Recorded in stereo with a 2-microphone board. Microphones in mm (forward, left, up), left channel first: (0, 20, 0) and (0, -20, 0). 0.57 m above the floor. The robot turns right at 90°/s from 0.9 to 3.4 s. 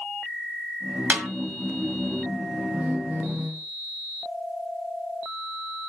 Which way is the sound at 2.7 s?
150° right.